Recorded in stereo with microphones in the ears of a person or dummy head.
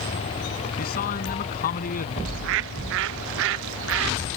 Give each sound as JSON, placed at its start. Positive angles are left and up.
{"t": 0.8, "sound": "a man speaking", "side_deg": 50}
{"t": 2.2, "sound": "a bird", "side_deg": -65}